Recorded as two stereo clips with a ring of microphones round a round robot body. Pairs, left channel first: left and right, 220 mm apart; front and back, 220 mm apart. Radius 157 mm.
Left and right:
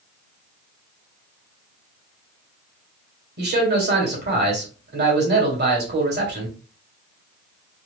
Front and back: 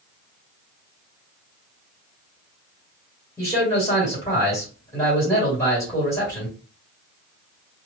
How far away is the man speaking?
About 1.8 m.